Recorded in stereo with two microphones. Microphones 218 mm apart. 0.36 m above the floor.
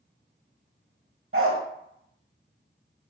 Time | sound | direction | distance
1.3 | a dog barking | 75° right (ahead or behind) | 0.6 m